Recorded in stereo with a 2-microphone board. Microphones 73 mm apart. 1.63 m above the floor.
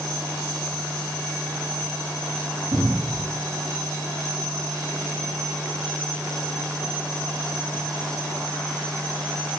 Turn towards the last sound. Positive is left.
turn(degrees=-70)  # may be behind; listen again after turning